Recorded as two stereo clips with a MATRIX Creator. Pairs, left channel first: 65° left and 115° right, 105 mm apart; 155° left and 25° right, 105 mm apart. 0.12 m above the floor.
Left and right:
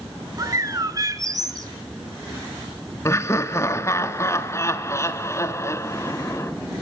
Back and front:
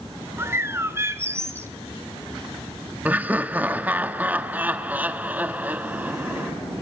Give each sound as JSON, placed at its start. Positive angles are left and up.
{"t": 0.4, "sound": "a bird", "azimuth_deg": -75, "distance_m": 1.2}
{"t": 3.0, "sound": "laughter", "azimuth_deg": 40, "distance_m": 1.2}